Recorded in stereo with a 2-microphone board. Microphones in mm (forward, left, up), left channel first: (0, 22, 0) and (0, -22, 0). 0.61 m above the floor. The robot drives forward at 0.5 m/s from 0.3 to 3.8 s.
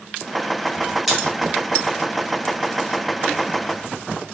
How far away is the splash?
About 5 m.